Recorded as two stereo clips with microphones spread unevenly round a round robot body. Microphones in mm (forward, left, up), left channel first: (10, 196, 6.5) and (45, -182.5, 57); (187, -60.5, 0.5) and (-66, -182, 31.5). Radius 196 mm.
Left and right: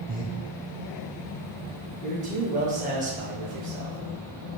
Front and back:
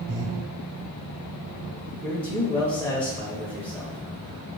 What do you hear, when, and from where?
0.1 s breathing: 160° right, 0.8 m
2.0 s a man speaking: 30° right, 0.9 m